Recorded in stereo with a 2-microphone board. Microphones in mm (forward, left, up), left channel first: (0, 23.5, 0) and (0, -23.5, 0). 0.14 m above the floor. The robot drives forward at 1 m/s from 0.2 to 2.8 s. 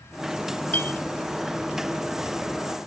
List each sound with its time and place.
0.7 s a clink: 35° left (ahead or behind), 0.9 m; by 1.0 s 40° left (ahead or behind), 0.9 m